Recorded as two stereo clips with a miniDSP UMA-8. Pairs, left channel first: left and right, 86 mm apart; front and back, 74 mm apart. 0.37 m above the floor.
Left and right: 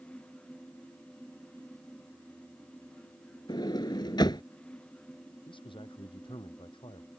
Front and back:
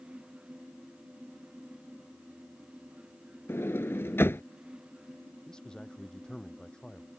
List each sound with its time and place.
3.5 s a sliding door: 55° left
5.5 s a man speaking: 80° left